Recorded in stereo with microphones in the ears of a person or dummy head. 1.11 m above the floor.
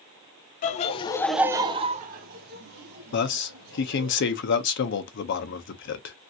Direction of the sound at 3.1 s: 60° left (ahead or behind).